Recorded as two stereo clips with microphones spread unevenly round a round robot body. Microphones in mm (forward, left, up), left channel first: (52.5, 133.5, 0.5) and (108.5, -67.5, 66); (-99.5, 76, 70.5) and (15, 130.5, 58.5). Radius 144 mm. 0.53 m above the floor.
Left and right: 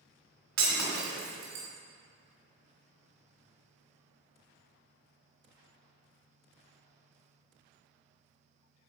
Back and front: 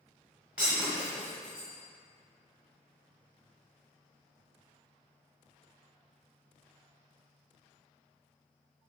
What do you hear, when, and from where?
0.6 s breaking glass: 60° right, 1.8 m